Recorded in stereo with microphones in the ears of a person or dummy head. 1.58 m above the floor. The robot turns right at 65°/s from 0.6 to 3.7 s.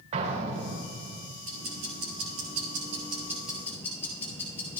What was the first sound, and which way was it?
An explosion, 140° right.